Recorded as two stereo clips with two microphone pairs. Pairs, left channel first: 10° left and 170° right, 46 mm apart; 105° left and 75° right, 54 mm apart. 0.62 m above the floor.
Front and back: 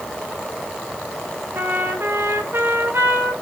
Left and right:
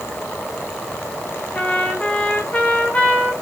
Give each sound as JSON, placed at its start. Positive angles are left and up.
{"t": 1.5, "sound": "a trumpet", "azimuth_deg": 170, "distance_m": 2.0}